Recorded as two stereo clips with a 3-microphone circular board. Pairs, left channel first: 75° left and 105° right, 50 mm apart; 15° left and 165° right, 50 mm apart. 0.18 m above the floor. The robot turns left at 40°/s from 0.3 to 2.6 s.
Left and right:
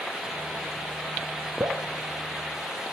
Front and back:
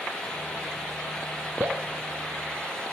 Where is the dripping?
125° right, 0.7 m; by 1.8 s 135° right, 0.7 m.